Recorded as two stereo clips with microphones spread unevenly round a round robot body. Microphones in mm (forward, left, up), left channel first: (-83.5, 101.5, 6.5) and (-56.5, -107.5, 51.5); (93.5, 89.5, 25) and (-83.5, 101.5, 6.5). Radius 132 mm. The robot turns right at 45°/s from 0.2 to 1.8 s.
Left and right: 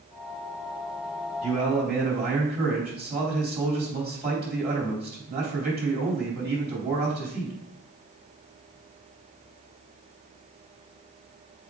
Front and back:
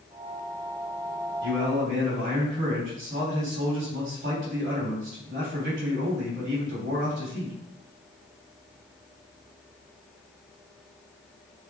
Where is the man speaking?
150° right, 3.5 m; by 7.5 s 130° right, 3.5 m.